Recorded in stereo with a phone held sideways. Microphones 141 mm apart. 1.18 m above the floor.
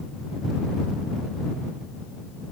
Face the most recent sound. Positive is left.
No sound to turn to.